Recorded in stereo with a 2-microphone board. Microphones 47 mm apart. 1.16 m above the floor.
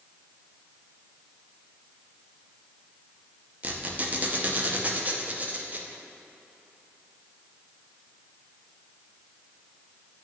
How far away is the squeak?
About 0.6 m.